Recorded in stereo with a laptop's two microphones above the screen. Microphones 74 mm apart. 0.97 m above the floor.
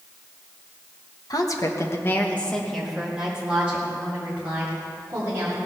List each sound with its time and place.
1.3 s a woman speaking: 55° left (ahead or behind), 1.3 m; by 5.6 s 30° right (ahead or behind), 4 m